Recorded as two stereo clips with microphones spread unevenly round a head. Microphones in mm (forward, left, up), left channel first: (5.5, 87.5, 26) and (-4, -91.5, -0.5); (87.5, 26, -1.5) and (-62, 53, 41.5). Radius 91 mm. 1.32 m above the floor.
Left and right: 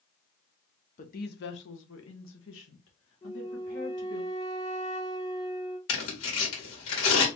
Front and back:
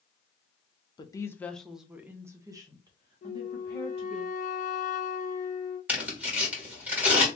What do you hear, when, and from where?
1.0 s a woman speaking: 40° left, 0.7 m; by 4.2 s 115° left, 2 m
3.2 s a flute: 30° left, 0.7 m
5.9 s tearing paper: 90° left, 2.0 m